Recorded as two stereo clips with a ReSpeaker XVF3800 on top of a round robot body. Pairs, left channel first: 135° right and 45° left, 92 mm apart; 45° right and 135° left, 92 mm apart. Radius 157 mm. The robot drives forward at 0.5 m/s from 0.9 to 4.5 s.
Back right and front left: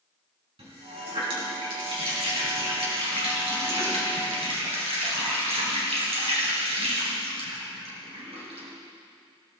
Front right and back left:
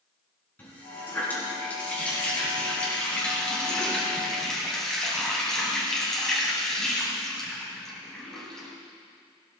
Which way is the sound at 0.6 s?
25° left.